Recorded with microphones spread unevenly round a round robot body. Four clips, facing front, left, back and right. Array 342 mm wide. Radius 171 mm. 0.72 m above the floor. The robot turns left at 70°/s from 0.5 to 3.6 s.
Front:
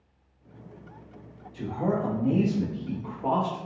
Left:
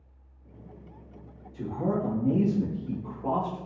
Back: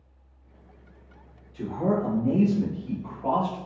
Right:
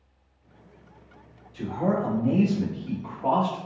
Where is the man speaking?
75° left, 1.3 m; by 3.7 s 70° right, 1.3 m.